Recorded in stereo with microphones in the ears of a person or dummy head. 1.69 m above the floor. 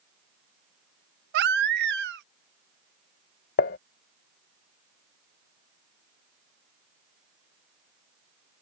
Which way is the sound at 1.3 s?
60° right (ahead or behind).